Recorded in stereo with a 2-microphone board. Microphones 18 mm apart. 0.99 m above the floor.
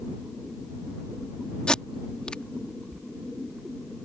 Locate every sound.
1.7 s tape being pulled: 60° left (ahead or behind)